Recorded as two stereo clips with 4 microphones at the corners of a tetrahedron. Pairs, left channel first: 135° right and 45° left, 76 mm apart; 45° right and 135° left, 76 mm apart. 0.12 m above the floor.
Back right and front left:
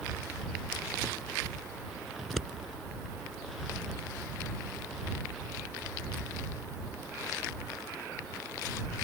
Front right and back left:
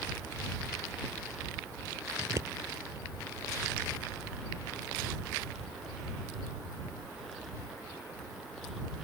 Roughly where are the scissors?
Behind left.